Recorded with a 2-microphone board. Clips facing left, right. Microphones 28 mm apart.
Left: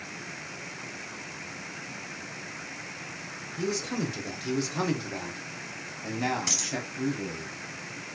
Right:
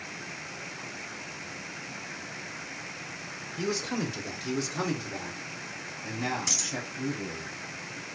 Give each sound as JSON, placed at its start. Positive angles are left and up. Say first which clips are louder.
{"t": 3.6, "sound": "a man speaking", "louder": "even", "side_deg": -20, "distance_m": 0.9}
{"t": 6.5, "sound": "a dropped coin", "louder": "left 1 dB", "side_deg": 30, "distance_m": 1.6}